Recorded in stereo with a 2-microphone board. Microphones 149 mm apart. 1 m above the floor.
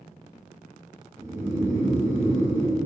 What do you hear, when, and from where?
1.2 s snoring: 20° right (ahead or behind), 1.3 m